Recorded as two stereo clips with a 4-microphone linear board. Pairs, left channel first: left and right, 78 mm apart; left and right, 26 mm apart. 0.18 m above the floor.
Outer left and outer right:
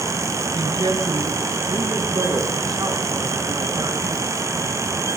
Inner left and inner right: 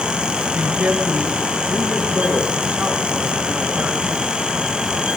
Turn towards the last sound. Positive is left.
turn(degrees=-60)  # may be behind; listen again after turning